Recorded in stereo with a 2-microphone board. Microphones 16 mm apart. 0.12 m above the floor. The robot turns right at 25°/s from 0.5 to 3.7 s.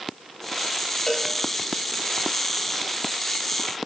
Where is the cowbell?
20° left (ahead or behind), 9 m; by 1.3 s 25° left (ahead or behind), 9 m.